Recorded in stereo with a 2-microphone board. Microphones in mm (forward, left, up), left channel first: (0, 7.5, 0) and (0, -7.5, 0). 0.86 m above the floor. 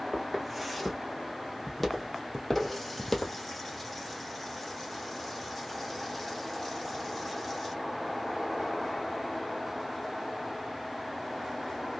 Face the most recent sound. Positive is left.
turn(degrees=5)  # may be behind; listen again after turning